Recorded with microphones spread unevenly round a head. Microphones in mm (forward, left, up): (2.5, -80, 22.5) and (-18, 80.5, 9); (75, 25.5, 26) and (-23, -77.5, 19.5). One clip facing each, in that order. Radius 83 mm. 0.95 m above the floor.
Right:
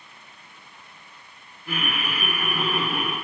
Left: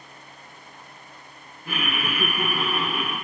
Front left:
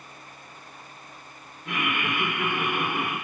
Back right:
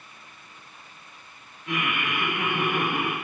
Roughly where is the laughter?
Left.